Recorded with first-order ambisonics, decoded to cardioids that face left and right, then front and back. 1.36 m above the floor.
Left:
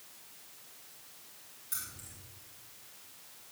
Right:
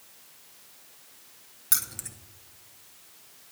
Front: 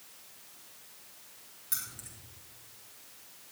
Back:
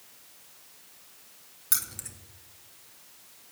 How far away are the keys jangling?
About 0.8 m.